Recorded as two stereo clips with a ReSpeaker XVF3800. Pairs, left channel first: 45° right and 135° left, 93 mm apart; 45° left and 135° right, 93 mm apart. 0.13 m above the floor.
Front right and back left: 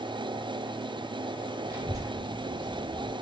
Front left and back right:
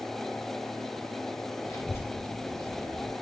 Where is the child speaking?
90° left, 2 m; by 3.1 s 135° left, 2.5 m.